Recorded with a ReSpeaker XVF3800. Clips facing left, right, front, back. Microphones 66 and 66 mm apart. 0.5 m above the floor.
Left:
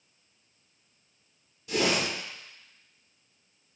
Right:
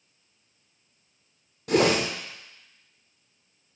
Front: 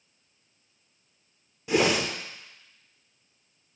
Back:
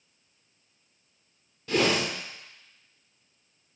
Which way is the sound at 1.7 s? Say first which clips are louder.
Right 6 dB, front 1 dB; 75° right.